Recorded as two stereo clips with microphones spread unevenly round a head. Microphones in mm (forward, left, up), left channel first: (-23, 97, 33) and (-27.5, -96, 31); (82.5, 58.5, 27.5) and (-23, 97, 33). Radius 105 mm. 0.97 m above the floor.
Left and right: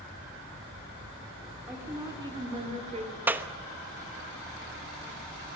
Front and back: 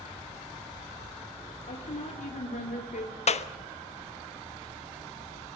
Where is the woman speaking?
10° right, 3 m; by 3.1 s 30° right, 3 m.